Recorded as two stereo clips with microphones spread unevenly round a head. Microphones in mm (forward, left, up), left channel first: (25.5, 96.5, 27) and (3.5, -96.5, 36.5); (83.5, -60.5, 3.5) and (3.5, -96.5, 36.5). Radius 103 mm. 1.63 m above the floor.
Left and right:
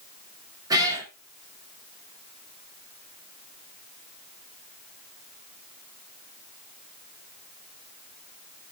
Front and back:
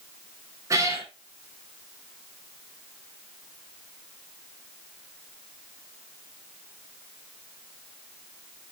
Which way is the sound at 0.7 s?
165° right.